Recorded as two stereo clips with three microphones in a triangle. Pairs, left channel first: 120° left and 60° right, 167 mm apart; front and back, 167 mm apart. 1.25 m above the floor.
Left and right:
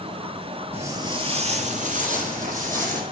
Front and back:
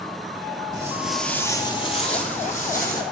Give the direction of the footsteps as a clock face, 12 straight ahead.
4 o'clock.